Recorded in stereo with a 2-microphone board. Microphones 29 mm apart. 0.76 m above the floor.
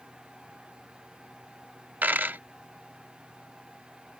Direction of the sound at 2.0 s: 80° right.